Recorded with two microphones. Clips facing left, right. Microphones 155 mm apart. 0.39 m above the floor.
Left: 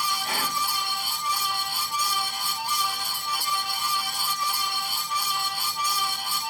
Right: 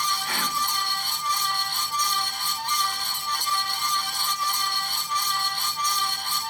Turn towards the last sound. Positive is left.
turn(degrees=25)  # may be behind; listen again after turning